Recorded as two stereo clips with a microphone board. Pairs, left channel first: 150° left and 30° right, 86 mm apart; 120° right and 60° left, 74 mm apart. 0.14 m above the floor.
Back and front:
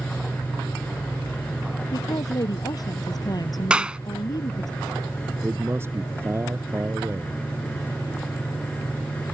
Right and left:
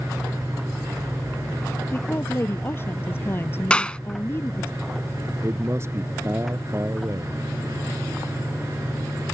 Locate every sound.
1.9 s a woman speaking: 175° right
3.7 s a clap: 80° right
5.4 s a man speaking: 20° left